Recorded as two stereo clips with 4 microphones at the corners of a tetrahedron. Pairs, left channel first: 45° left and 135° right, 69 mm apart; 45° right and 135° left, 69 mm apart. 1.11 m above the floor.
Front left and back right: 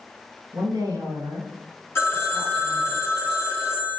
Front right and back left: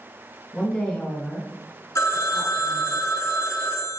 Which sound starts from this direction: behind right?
A woman speaking, at 0.5 s.